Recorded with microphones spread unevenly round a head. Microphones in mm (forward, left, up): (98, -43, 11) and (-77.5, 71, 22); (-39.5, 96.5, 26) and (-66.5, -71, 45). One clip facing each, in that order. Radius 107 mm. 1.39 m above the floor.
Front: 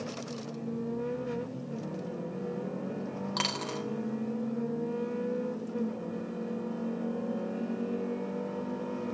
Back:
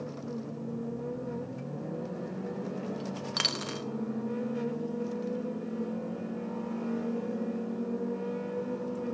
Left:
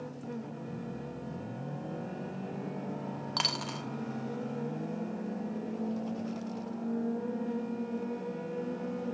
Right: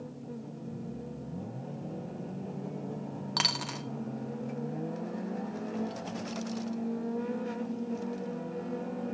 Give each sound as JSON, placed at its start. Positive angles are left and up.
{"t": 3.4, "sound": "a dropped coin", "azimuth_deg": -170, "distance_m": 0.7}